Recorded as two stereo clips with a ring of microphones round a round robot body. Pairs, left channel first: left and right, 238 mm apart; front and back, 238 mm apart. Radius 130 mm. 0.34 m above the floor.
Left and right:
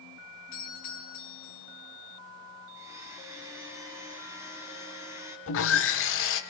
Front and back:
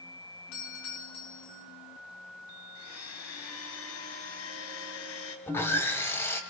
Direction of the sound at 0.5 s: 30° left.